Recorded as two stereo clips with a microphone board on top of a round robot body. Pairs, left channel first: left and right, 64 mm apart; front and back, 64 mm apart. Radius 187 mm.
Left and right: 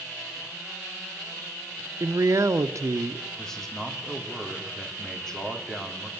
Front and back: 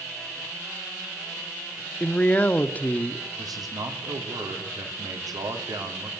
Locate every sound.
2.0 s a man speaking: 60° right, 1.3 m
3.4 s a man speaking: 175° left, 3.5 m